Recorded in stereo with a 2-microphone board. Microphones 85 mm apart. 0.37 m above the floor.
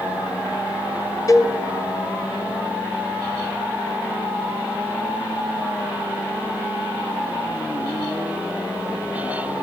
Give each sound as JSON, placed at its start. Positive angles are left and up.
{"t": 1.3, "sound": "a cowbell", "side_deg": 40, "distance_m": 1.5}